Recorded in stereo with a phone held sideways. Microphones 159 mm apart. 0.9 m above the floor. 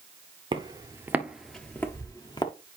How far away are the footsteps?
About 1.0 m.